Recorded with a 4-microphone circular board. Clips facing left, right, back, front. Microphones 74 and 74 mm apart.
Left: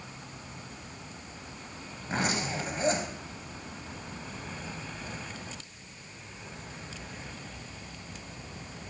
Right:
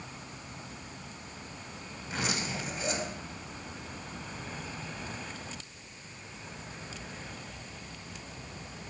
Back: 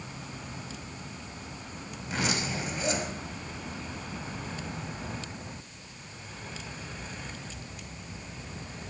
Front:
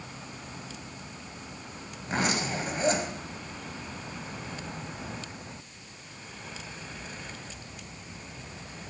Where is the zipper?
45° left, 1.7 m.